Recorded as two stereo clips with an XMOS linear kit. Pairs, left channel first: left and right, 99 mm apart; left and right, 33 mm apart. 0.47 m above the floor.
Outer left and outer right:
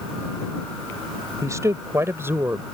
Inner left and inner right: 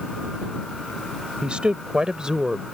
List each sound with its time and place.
1.4 s a woman speaking: 35° right (ahead or behind); by 2.6 s 20° right (ahead or behind)